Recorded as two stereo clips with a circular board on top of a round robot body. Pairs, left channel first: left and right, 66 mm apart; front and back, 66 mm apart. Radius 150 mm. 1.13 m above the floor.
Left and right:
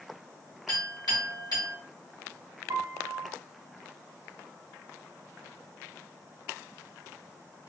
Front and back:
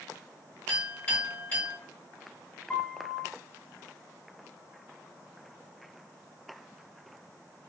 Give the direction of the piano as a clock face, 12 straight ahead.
2 o'clock.